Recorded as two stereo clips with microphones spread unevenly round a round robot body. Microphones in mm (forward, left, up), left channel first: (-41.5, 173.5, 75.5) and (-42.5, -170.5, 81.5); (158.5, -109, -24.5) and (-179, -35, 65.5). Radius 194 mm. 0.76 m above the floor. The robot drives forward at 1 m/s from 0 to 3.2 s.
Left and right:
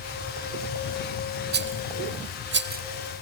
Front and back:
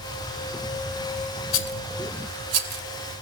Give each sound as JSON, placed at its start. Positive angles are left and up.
{"t": 1.5, "sound": "a rattle", "azimuth_deg": -35}